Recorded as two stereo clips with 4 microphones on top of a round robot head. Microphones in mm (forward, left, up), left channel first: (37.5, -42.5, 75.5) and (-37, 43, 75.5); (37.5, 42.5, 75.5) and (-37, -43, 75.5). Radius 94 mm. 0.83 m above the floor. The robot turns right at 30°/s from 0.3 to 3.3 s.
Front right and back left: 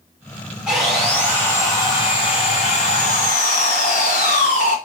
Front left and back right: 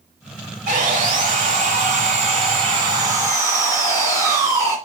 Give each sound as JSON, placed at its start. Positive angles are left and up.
{"t": 0.7, "sound": "sawing", "azimuth_deg": -145, "distance_m": 1.9}